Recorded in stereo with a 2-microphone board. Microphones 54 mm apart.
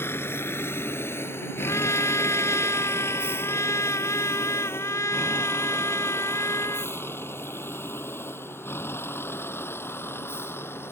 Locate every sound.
0.0 s a vehicle: 50° left (ahead or behind); by 10.9 s 45° left (ahead or behind)
1.6 s a trumpet: 65° left (ahead or behind)